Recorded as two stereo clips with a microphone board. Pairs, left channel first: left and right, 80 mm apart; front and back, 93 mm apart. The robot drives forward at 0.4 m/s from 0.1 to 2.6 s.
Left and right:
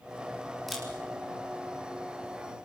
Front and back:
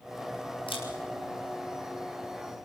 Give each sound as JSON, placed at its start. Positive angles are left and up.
{"t": 0.7, "sound": "a camera shutter", "azimuth_deg": 0, "distance_m": 5.0}